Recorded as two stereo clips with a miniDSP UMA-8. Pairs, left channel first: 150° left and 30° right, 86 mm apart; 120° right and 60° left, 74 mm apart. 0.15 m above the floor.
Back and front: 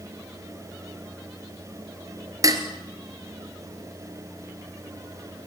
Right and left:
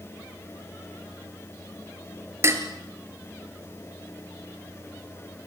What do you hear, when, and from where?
2.4 s dishes clattering: 10° left, 2 m